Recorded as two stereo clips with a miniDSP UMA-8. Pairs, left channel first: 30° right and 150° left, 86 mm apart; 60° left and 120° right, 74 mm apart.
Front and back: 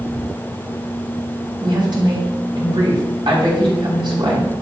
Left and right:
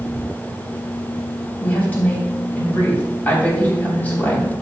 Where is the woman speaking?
130° left, 3 m.